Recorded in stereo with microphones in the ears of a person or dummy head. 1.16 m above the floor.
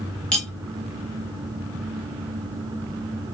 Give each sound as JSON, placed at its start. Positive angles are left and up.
{"t": 0.3, "sound": "cutlery clinking", "side_deg": 5, "distance_m": 1.0}